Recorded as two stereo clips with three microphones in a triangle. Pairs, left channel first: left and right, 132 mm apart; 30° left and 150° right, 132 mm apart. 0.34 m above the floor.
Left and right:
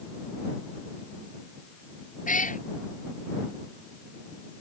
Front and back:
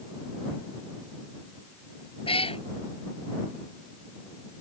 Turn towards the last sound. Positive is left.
turn(degrees=75)